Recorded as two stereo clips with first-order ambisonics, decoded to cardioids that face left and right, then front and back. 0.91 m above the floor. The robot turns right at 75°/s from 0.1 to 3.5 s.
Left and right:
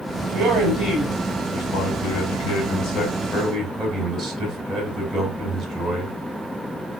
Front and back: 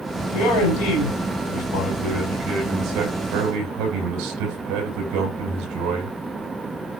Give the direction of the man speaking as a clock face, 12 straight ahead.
2 o'clock.